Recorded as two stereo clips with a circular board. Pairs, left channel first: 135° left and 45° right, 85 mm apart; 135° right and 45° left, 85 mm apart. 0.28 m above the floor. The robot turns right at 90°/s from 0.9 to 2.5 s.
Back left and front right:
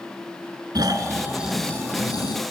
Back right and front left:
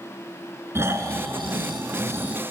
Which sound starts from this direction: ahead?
Snoring, at 0.8 s.